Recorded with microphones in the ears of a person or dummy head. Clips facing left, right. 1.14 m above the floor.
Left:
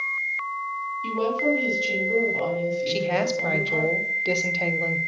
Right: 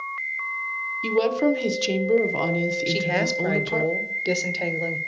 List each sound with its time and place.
1.0 s a woman speaking: 65° right (ahead or behind), 0.7 m
2.9 s a woman speaking: 10° right (ahead or behind), 0.5 m